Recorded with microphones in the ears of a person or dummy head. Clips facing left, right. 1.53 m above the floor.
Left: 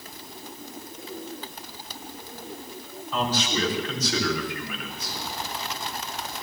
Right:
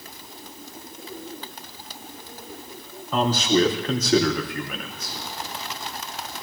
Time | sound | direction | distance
3.1 | a man speaking | 45° right (ahead or behind) | 2.5 m